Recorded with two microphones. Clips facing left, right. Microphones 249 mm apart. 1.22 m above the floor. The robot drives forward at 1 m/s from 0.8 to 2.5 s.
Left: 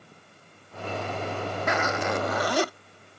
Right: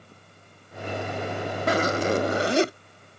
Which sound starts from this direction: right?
A zipper, at 1.7 s.